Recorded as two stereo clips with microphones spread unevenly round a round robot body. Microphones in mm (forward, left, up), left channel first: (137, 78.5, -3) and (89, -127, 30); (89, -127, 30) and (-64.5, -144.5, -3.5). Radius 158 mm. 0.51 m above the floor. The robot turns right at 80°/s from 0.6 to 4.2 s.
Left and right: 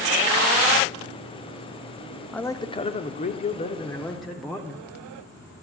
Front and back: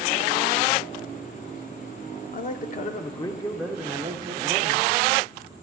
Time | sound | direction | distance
2.3 | a man speaking | 5° left | 0.9 m